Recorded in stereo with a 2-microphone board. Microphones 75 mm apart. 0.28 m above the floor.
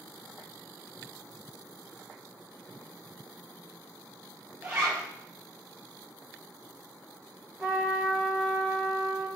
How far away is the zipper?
About 5 m.